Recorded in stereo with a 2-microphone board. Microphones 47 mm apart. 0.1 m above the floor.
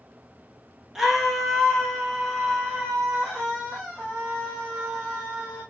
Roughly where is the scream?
Centre.